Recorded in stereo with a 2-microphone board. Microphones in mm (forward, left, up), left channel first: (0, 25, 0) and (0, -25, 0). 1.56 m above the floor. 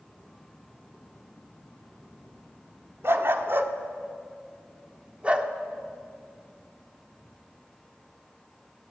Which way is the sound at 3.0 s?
55° right (ahead or behind).